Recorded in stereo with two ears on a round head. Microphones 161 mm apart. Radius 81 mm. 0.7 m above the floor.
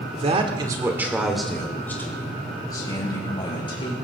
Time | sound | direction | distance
0.2 | a man speaking | 40° right (ahead or behind) | 2 m